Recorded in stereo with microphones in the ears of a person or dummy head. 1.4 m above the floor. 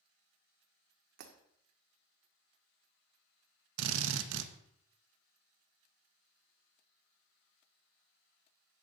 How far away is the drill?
About 1.3 m.